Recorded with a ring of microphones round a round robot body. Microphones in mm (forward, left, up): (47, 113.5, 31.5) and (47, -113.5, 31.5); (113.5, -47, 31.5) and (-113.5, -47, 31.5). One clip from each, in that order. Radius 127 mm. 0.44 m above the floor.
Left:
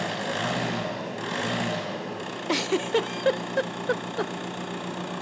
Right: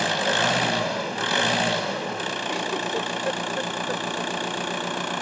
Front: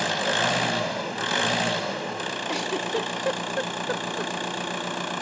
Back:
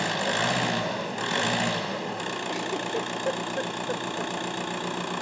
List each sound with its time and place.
0.0 s an engine running: 65° right, 1.7 m
2.5 s a giggle: 55° left, 0.6 m